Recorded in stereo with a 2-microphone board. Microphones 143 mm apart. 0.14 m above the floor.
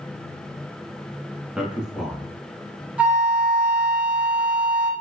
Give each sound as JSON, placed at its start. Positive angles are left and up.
{"t": 1.6, "sound": "a man speaking", "side_deg": -5, "distance_m": 1.1}
{"t": 3.0, "sound": "a flute", "side_deg": -10, "distance_m": 0.9}